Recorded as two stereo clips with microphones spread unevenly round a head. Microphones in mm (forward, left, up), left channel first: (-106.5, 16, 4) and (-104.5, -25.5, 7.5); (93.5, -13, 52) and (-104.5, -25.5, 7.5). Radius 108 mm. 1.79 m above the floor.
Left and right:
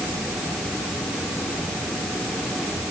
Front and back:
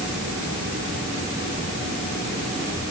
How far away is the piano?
I don't hear a piano.